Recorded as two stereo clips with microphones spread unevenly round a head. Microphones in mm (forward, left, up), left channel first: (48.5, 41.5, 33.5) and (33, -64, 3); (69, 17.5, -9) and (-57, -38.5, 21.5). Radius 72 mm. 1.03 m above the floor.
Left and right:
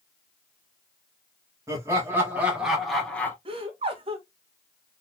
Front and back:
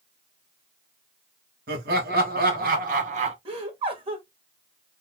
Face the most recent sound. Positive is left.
turn(degrees=-105)